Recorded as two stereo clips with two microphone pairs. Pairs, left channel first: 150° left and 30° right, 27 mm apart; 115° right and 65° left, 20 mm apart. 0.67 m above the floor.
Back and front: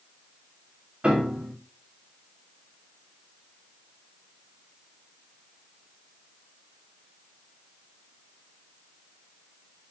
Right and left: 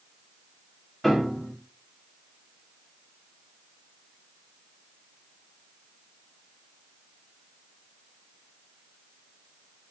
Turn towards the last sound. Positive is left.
turn(degrees=-35)